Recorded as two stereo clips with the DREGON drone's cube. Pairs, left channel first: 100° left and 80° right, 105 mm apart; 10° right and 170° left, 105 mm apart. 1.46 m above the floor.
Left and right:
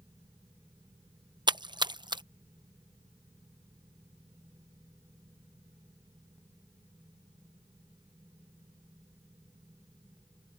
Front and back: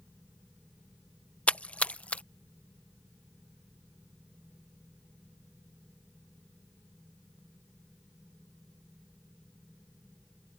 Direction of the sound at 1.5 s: 85° right.